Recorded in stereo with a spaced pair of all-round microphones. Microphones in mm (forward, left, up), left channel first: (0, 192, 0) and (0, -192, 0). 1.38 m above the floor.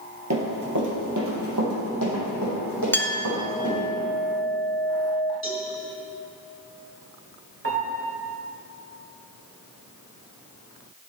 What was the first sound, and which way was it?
Running footsteps, 45° right (ahead or behind).